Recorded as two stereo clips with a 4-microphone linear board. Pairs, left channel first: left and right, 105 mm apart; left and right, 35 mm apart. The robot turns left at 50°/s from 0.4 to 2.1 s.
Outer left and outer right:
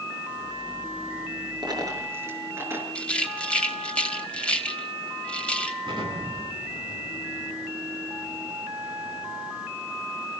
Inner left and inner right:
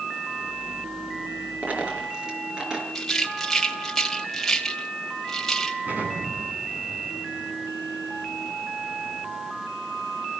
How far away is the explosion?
About 9 m.